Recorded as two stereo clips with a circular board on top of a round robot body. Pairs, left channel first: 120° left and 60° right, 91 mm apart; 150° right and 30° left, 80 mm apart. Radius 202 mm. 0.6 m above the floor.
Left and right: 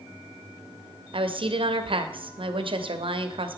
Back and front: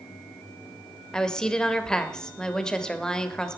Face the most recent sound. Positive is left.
turn(degrees=-70)